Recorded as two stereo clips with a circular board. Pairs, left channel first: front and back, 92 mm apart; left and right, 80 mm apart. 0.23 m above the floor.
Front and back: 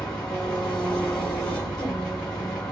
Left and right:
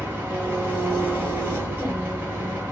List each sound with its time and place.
0.0 s an engine running: 70° right, 1.0 m